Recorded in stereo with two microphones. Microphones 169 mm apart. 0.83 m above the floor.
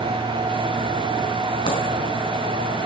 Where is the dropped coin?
35° left (ahead or behind), 4 m.